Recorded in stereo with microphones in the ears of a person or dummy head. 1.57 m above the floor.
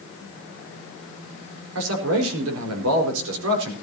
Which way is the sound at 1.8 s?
75° right (ahead or behind).